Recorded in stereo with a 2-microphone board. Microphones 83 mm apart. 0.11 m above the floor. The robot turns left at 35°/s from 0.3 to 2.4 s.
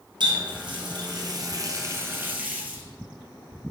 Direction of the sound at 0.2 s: 90° right.